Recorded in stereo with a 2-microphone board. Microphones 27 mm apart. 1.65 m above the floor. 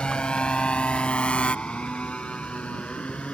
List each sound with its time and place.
0.0 s a motorcycle: 40° left (ahead or behind); by 3.3 s 50° left (ahead or behind)